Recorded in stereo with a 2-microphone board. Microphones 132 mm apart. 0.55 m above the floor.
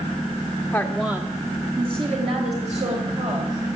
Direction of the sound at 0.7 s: 15° left (ahead or behind).